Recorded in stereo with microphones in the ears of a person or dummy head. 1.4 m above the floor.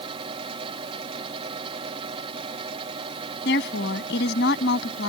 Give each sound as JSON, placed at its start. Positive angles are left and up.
{"t": 0.0, "sound": "a fan", "side_deg": -35}
{"t": 3.5, "sound": "a woman speaking", "side_deg": 65}